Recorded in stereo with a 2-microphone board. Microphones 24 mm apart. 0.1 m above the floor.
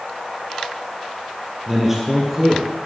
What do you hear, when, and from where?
1.7 s a man speaking: 15° right (ahead or behind), 2.5 m; by 2.7 s 10° right (ahead or behind), 1.4 m